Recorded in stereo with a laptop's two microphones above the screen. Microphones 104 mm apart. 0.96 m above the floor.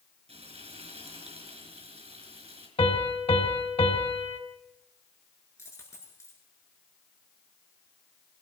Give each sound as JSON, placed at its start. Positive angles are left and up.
{"t": 0.3, "sound": "frying", "side_deg": -70, "distance_m": 5.0}
{"t": 2.8, "sound": "a piano", "side_deg": 65, "distance_m": 2.0}
{"t": 5.6, "sound": "a dropped coin", "side_deg": 25, "distance_m": 7.0}